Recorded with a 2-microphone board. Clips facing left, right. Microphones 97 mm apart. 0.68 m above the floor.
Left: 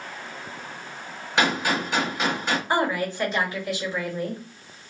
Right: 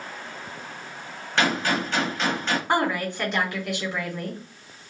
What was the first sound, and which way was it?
A gunshot, 10° left (ahead or behind).